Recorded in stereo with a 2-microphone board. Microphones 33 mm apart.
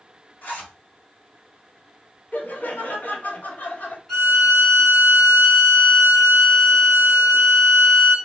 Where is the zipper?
55° left (ahead or behind), 1.5 m.